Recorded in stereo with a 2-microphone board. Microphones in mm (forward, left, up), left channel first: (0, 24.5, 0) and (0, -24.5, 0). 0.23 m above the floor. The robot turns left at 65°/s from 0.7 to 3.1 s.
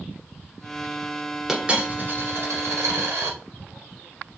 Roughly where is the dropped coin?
Ahead.